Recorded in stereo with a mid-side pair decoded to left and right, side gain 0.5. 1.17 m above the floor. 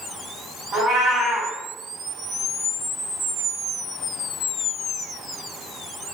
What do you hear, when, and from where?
0.7 s a cat meowing: 70° right, 1.7 m